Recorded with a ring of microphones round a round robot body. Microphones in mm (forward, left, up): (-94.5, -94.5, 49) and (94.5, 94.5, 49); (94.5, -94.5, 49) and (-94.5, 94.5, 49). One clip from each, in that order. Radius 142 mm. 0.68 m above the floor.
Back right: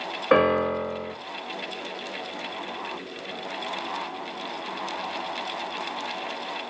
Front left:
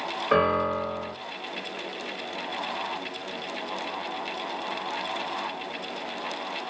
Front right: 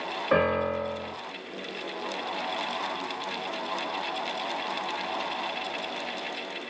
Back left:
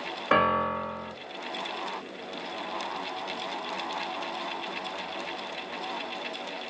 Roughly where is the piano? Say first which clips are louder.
Back right 3 dB, back left 1 dB; behind.